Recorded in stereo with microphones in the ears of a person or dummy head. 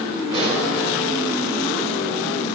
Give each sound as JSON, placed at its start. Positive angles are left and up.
{"t": 0.3, "sound": "a pop", "side_deg": -35, "distance_m": 5.5}